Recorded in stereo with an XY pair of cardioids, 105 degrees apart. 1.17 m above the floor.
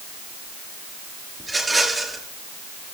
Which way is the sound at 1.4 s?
10° right.